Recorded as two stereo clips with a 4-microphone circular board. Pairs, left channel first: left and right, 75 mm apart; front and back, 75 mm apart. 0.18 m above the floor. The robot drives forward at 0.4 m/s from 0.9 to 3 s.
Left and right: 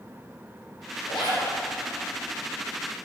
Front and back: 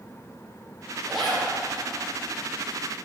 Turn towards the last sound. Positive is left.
turn(degrees=105)